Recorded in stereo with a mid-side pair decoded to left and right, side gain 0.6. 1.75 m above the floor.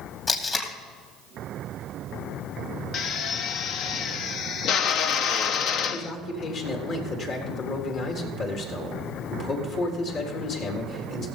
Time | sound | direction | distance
0.3 | tape being pulled | 35° left | 2.5 m
2.9 | a drill | 55° left | 0.8 m
5.9 | a man speaking | 55° left | 4 m